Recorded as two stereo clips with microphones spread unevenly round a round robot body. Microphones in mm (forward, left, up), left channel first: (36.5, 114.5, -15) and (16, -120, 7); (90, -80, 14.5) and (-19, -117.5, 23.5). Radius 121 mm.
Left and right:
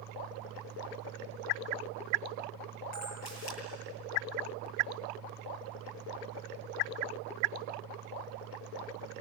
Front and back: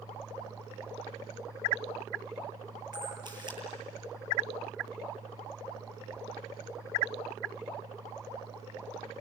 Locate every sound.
2.9 s a camera shutter: 70° left, 8.5 m